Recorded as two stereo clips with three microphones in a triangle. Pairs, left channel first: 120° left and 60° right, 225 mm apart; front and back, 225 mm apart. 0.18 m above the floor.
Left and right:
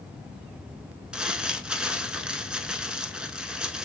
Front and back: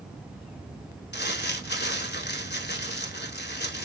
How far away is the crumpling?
About 0.6 m.